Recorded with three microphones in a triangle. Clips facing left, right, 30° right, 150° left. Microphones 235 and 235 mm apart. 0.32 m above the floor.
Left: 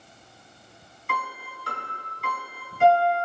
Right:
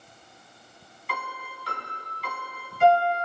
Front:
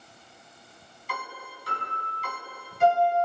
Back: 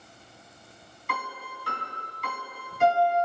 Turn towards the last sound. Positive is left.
turn(degrees=125)